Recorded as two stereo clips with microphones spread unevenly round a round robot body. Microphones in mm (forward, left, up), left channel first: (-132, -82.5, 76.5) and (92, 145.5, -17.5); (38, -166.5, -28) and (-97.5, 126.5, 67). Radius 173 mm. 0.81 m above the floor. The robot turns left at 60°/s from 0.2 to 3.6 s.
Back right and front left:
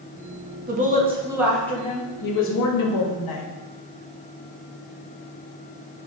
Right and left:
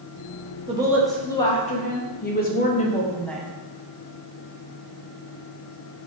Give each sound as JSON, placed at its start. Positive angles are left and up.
{"t": 0.7, "sound": "a woman speaking", "azimuth_deg": 30, "distance_m": 0.7}